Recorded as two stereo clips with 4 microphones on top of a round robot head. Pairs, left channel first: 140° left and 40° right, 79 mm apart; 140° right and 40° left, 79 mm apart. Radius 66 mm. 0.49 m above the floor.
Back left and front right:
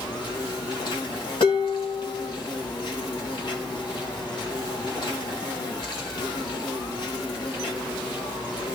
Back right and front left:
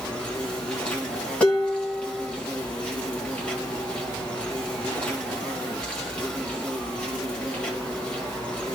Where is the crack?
I don't hear a crack.